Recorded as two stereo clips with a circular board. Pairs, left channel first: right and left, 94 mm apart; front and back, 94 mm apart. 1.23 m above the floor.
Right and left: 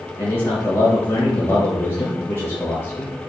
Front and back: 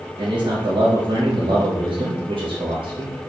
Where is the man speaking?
155° right, 1.7 m.